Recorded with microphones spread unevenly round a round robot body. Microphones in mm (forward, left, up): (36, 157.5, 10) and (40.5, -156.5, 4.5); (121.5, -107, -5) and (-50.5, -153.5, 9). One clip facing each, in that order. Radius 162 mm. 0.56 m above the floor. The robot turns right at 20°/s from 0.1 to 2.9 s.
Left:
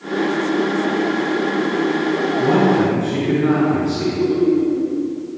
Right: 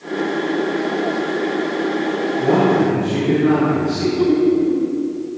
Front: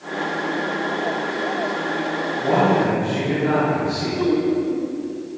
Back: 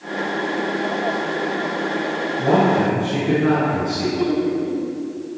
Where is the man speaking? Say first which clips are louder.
Right 1 dB, back 1 dB; 170° left, 6 m; by 4.1 s straight behind, 6 m.